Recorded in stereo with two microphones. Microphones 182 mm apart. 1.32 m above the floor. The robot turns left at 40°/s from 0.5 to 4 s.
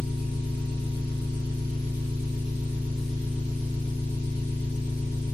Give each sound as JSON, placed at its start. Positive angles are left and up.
{"t": 0.0, "sound": "an engine running", "azimuth_deg": -80, "distance_m": 1.2}